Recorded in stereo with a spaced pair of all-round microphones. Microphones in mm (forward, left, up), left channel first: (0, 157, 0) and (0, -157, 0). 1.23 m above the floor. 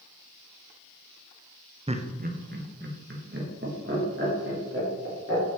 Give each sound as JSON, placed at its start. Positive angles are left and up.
{"t": 1.9, "sound": "laughter", "side_deg": -20, "distance_m": 0.6}